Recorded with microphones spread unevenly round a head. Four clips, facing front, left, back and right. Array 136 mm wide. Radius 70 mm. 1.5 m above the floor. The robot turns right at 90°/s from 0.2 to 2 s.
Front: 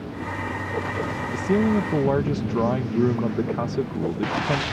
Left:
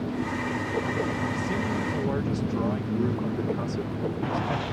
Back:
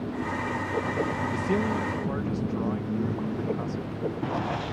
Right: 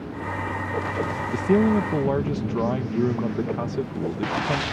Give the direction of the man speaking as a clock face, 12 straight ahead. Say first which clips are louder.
Right 9 dB, front 8 dB; 3 o'clock.